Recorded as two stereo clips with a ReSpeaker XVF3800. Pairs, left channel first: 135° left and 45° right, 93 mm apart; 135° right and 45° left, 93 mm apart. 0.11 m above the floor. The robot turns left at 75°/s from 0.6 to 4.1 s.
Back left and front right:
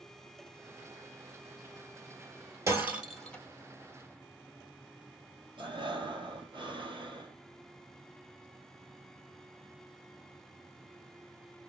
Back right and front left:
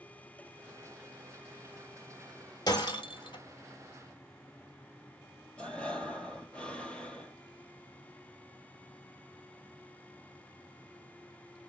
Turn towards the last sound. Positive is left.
turn(degrees=-60)